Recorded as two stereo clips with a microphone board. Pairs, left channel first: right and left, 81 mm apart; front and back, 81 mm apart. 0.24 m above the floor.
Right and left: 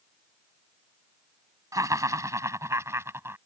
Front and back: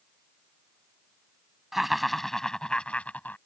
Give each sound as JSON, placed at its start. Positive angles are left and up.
{"t": 1.7, "sound": "laughter", "azimuth_deg": 95}